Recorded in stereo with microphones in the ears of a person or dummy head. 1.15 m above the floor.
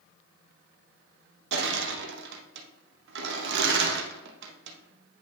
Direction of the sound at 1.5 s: 70° right (ahead or behind).